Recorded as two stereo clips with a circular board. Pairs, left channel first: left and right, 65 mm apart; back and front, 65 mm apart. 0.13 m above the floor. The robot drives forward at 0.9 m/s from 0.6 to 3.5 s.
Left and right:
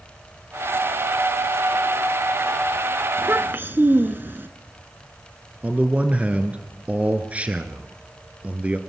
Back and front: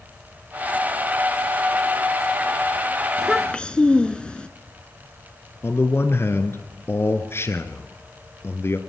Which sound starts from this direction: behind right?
A man speaking, at 5.6 s.